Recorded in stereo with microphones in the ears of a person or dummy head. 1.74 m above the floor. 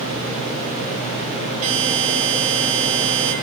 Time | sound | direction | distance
1.6 | a buzzer | 45° right (ahead or behind) | 6 m